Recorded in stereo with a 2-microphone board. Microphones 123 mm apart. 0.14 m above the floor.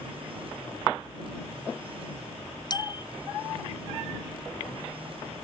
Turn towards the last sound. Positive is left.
turn(degrees=35)  # may be behind; listen again after turning